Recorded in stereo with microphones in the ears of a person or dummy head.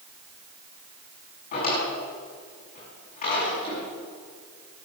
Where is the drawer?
45° left (ahead or behind), 8 m.